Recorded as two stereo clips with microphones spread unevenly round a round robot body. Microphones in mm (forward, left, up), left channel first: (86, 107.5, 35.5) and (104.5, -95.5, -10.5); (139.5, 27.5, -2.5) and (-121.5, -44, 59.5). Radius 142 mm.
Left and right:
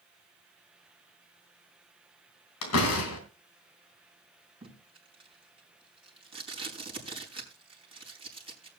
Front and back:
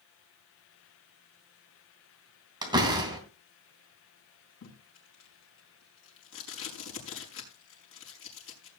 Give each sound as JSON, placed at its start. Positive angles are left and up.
{"t": 2.6, "sound": "a door slam", "azimuth_deg": 120, "distance_m": 3.0}
{"t": 4.6, "sound": "tape being pulled", "azimuth_deg": -25, "distance_m": 5.0}